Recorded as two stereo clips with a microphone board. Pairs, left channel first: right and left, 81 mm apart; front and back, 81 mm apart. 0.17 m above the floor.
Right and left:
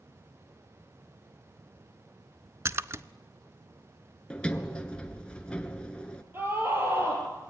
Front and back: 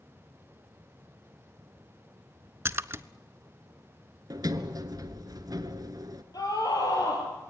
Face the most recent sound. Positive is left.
turn(degrees=30)